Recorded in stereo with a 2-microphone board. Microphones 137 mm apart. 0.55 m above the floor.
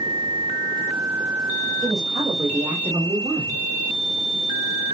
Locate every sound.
1.8 s a woman speaking: 40° right (ahead or behind), 2.5 m; by 3.6 s 25° right (ahead or behind), 1.4 m